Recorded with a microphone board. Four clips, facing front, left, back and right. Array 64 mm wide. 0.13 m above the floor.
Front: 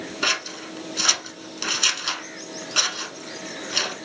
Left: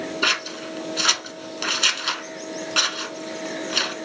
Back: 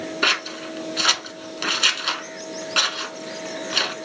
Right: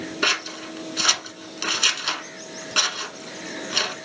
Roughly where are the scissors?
Behind.